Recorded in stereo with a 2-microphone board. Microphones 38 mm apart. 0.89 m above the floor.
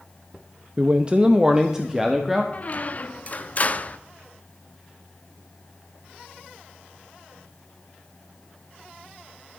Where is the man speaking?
35° right (ahead or behind), 0.6 m; by 2.4 s 5° right (ahead or behind), 1.4 m.